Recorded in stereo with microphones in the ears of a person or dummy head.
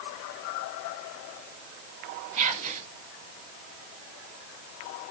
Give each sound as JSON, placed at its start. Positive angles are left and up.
{"t": 2.4, "sound": "whispering", "side_deg": -40, "distance_m": 1.0}